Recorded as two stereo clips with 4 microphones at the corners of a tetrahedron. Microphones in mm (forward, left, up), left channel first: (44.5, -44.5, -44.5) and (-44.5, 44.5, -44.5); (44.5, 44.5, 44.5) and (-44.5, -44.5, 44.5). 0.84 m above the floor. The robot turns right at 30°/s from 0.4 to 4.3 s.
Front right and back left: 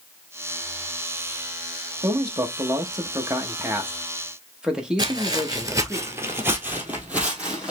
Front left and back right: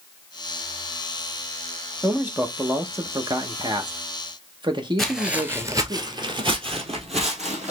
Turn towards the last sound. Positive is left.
turn(degrees=-145)